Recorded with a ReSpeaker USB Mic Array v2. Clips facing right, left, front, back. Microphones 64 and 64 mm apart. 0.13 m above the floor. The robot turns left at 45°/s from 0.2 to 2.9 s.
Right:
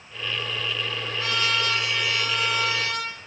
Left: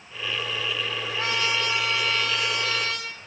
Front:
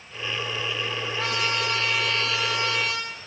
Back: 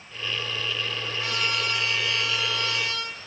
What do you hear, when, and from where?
1.2 s a trumpet: 35° left, 5 m; by 3.1 s 40° right, 5 m